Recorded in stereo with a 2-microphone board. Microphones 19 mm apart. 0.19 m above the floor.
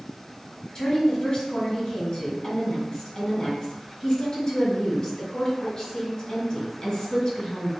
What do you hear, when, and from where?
0.8 s a woman speaking: 40° left (ahead or behind), 1.8 m